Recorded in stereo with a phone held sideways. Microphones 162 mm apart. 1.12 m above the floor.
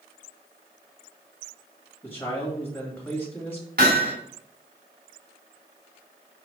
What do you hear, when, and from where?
2.0 s a man speaking: 10° left (ahead or behind), 1.9 m
3.8 s hammering: 80° right, 2.5 m